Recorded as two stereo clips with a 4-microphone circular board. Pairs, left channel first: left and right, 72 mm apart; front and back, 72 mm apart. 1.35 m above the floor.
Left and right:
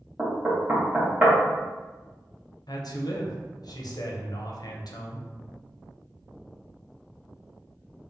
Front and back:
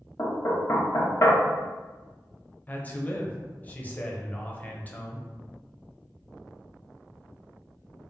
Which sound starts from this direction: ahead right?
Knocking, at 0.2 s.